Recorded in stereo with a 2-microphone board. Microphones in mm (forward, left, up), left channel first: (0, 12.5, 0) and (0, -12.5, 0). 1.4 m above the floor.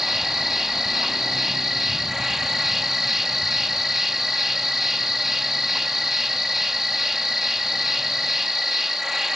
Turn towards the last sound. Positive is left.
turn(degrees=-15)  # may be behind; listen again after turning